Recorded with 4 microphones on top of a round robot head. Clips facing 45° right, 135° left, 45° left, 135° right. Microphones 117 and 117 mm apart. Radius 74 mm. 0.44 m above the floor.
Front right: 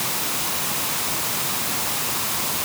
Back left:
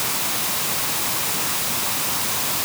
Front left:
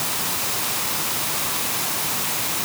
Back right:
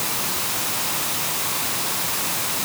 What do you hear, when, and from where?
Only background noise.